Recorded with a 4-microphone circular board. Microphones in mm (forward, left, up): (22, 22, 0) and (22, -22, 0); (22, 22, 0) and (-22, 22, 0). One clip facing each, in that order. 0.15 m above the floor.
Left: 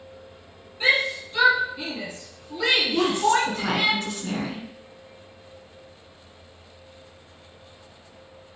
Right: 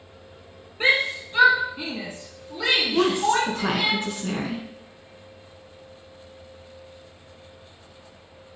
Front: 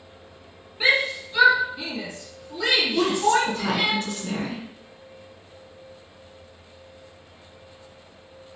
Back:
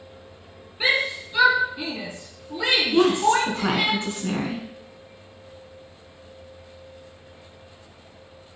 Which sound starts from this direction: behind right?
A woman speaking, at 2.9 s.